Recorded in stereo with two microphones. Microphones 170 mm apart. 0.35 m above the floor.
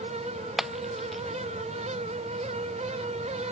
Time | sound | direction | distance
0.6 | breaking glass | centre (ahead or behind) | ?